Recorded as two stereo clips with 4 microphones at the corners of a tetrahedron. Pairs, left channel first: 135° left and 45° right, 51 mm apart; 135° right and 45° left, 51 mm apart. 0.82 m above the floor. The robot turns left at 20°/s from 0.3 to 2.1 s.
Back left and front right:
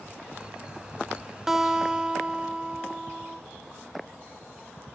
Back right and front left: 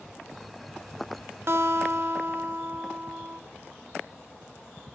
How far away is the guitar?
About 0.7 m.